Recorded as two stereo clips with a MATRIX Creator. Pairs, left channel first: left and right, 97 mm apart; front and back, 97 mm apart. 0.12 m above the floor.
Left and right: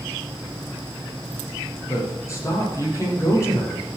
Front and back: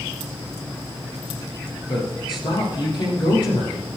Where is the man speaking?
35° left, 5 m.